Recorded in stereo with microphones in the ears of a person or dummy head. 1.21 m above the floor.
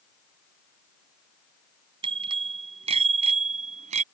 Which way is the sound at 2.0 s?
30° right (ahead or behind).